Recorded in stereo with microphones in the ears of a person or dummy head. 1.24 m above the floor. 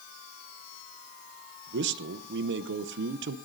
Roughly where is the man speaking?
Right.